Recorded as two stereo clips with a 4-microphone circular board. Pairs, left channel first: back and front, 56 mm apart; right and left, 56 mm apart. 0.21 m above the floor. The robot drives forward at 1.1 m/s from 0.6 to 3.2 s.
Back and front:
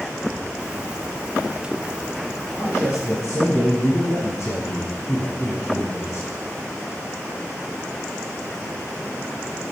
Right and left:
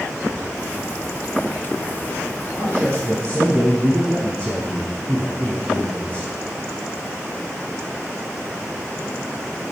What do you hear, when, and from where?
2.6 s a man speaking: 130° left, 4 m; by 6.3 s 140° left, 4.5 m